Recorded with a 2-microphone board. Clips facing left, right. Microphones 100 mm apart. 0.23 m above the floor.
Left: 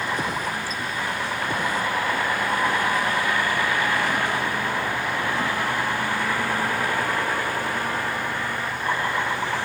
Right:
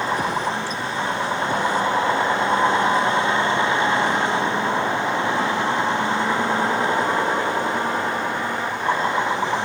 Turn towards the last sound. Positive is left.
turn(degrees=-20)  # may be behind; listen again after turning